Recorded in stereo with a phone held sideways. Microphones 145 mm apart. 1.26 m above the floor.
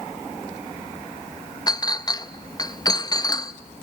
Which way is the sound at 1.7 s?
25° left (ahead or behind).